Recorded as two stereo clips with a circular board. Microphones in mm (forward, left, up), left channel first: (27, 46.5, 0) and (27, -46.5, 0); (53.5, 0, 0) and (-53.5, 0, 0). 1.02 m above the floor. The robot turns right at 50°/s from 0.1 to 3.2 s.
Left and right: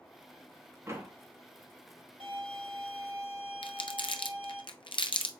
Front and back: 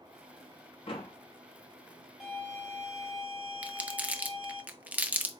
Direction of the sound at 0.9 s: 30° right.